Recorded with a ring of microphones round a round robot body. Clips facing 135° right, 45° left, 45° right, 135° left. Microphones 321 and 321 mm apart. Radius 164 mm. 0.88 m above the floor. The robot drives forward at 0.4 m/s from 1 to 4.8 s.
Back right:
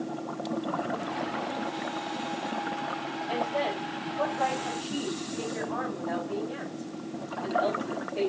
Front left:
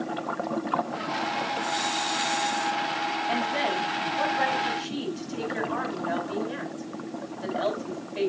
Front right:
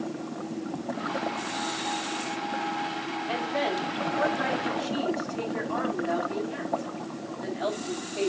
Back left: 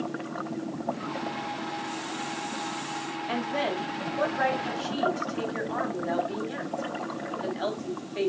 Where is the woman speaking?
90° left, 5.5 m; by 8.3 s 100° left, 5.5 m.